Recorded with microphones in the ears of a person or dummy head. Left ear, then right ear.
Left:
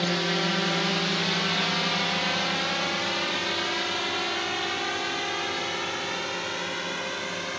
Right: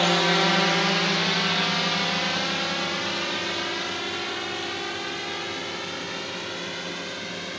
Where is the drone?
30° right (ahead or behind); by 7.6 s 30° left (ahead or behind).